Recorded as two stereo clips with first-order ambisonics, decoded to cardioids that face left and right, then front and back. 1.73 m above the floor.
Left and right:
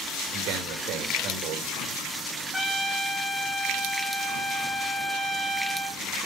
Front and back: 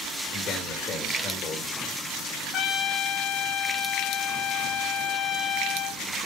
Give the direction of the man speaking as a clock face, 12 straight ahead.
2 o'clock.